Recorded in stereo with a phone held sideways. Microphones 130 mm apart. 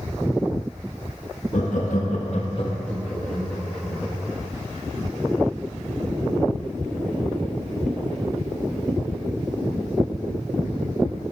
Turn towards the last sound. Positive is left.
turn(degrees=5)  # may be behind; listen again after turning